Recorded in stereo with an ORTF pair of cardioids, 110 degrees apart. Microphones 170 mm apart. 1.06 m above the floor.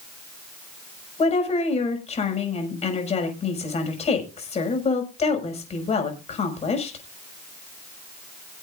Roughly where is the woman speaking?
Ahead left.